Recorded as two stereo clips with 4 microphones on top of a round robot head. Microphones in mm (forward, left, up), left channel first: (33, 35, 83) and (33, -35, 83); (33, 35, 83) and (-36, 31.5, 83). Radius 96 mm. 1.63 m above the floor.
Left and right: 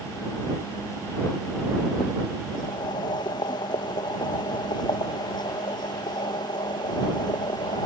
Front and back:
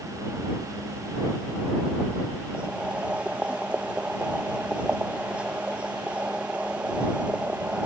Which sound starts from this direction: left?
Boiling, at 2.5 s.